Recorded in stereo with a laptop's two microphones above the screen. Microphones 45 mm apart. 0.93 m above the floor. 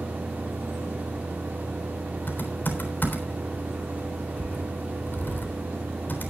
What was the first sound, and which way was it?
A fan, 40° right (ahead or behind).